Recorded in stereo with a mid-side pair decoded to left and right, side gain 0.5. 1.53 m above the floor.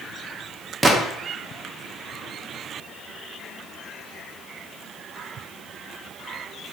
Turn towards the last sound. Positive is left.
turn(degrees=-25)